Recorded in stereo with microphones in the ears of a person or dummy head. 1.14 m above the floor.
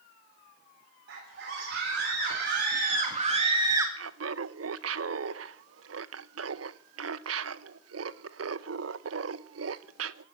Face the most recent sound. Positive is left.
turn(degrees=-70)  # may be behind; listen again after turning